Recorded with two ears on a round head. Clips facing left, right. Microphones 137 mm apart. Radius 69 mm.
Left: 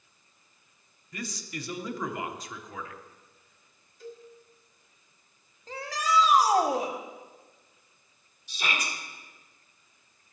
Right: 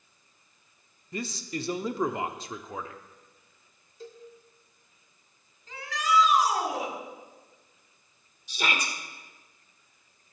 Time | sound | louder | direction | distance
1.1 | a man speaking | right 4 dB | 25° right (ahead or behind) | 0.9 m
4.0 | a cowbell | left 1 dB | 25° right (ahead or behind) | 1.4 m
5.7 | a shout | right 1 dB | 30° left (ahead or behind) | 1.5 m
8.5 | a shout | right 2 dB | 55° right (ahead or behind) | 2 m